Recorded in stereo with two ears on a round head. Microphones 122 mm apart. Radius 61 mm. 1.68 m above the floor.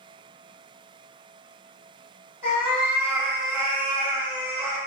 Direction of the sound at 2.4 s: 40° left (ahead or behind).